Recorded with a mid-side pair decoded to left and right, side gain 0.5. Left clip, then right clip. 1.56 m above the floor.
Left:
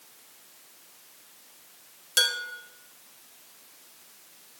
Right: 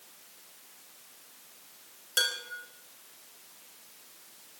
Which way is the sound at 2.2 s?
15° left.